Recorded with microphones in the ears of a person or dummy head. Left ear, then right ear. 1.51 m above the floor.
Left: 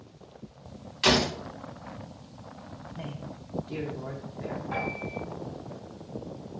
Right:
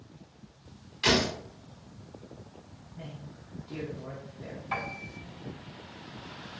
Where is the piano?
90° right, 4 m.